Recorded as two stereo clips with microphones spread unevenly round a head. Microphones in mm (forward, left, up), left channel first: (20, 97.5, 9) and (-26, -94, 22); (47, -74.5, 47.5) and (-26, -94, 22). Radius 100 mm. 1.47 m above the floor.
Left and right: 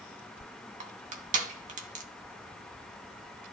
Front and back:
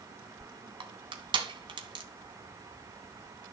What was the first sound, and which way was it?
Crushing, 150° right.